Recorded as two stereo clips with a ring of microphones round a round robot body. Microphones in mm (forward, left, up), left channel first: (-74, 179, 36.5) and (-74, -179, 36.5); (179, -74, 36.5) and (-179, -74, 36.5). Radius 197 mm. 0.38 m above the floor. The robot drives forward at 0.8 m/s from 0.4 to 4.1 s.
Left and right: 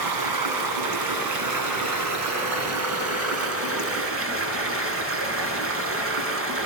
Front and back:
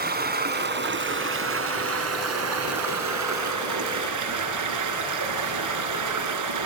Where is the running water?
115° right, 4 m; by 6.7 s 145° right, 6 m.